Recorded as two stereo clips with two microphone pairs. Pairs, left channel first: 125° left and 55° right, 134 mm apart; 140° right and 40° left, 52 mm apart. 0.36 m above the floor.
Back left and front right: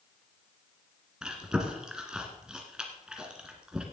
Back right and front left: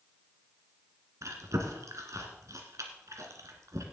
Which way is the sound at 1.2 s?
30° left.